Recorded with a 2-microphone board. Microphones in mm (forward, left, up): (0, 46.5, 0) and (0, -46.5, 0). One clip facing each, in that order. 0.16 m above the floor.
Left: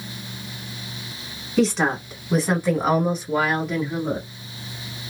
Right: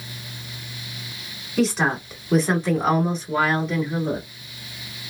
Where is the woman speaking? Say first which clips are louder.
Left 1 dB; 5° right (ahead or behind), 1.2 m; by 4.3 s 15° left (ahead or behind), 1.2 m.